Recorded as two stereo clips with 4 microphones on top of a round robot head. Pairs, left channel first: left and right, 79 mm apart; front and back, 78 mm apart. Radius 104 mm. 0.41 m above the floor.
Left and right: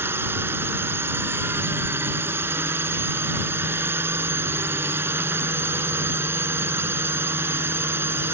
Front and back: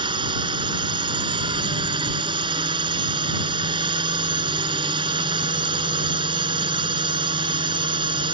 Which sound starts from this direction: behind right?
A drone, at 0.0 s.